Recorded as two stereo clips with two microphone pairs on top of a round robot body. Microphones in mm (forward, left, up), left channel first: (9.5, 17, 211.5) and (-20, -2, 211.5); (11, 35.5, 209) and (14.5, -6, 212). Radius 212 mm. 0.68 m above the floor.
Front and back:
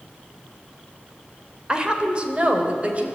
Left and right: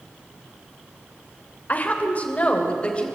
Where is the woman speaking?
145° left, 3 m; by 3.0 s 160° left, 4 m.